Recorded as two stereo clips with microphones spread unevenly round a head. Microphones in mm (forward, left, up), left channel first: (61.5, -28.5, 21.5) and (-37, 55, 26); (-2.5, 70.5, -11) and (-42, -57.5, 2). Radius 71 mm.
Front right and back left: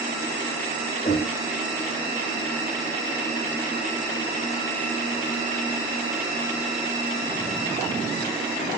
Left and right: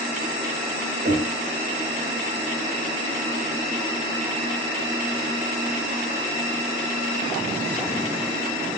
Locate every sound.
1.1 s knocking: 95° right, 3 m